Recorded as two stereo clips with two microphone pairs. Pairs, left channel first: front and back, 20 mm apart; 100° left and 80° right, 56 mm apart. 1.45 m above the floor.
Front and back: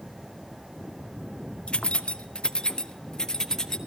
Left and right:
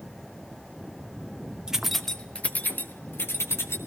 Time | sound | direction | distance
1.7 | keys jangling | 10° right | 0.7 m